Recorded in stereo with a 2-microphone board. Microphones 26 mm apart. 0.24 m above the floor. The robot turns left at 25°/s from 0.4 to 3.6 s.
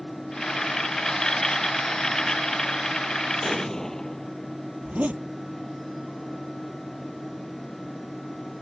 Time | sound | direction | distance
3.4 | an explosion | 20° left (ahead or behind) | ?
4.8 | a zipper | 80° right | ?